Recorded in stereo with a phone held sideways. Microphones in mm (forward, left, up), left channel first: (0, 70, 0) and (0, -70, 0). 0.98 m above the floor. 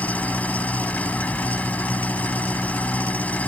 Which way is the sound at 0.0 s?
10° left (ahead or behind).